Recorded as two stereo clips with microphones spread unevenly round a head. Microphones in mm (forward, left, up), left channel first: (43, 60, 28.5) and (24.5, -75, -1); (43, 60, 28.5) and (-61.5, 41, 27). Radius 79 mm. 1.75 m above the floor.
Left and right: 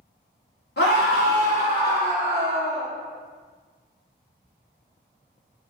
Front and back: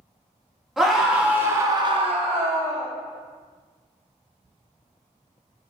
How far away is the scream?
About 1.6 m.